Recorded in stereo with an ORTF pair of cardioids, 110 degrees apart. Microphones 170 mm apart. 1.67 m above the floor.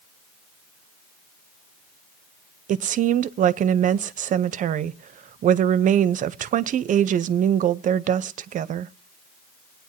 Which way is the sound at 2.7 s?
50° right.